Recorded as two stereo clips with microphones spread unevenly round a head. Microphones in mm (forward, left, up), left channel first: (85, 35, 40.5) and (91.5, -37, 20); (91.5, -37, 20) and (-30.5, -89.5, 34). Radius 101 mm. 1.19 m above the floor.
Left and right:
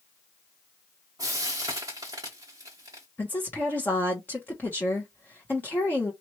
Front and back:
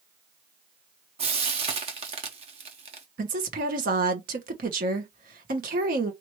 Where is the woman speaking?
175° left, 0.9 m.